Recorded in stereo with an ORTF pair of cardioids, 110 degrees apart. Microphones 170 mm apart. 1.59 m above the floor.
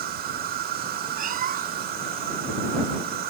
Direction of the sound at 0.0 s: 65° right.